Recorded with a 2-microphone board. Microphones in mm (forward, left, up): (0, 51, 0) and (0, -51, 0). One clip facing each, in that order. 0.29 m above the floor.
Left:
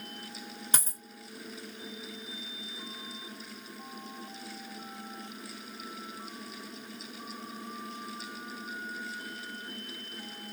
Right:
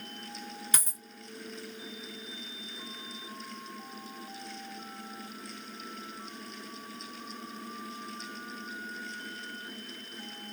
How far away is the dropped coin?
About 1.5 m.